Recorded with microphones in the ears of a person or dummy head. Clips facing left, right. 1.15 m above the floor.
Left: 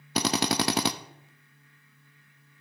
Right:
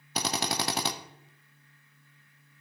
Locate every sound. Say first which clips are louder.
0.1 s a drill: left 6 dB; 60° left (ahead or behind), 0.7 m